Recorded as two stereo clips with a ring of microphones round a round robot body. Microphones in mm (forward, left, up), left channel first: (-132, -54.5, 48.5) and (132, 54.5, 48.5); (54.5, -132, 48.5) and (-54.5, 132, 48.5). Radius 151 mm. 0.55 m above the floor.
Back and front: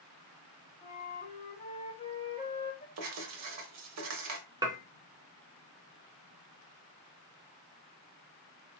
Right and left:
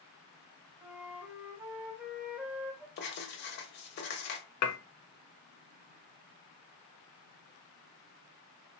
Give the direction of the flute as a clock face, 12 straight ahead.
6 o'clock.